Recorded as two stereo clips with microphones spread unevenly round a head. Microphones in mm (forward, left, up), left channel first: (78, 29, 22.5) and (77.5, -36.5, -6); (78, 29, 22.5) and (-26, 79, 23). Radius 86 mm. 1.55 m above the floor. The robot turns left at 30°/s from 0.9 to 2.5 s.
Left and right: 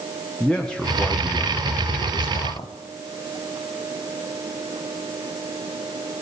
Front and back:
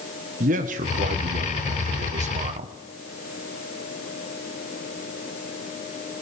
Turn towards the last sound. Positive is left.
turn(degrees=130)